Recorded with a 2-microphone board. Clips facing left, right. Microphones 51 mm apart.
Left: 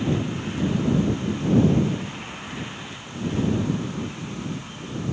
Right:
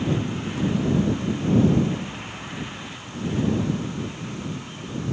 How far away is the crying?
I don't hear crying.